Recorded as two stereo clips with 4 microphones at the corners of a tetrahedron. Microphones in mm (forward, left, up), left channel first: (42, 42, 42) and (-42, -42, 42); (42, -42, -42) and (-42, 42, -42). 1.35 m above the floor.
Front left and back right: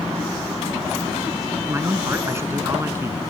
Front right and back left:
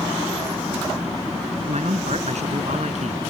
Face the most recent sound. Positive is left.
turn(degrees=155)